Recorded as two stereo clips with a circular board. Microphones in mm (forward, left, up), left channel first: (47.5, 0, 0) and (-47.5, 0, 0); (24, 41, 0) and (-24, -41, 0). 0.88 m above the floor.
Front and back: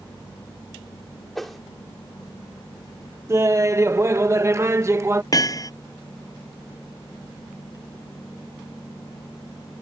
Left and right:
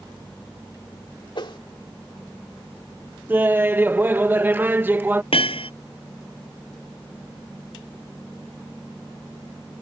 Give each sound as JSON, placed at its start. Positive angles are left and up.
{"t": 1.4, "sound": "a whoosh", "azimuth_deg": 90}
{"t": 3.3, "sound": "laughter", "azimuth_deg": -165}
{"t": 5.3, "sound": "hammering", "azimuth_deg": 50}